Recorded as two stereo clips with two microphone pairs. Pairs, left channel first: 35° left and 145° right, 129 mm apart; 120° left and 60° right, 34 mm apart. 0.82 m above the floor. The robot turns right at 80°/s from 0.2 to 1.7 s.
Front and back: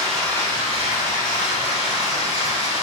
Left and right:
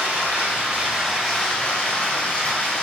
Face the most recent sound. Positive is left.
turn(degrees=70)